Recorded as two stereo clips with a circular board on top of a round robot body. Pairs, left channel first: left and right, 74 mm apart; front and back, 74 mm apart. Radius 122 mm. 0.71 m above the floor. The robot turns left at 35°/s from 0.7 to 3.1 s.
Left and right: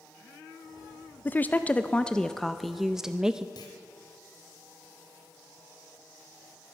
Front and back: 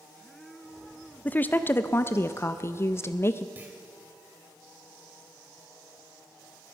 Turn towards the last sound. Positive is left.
turn(degrees=115)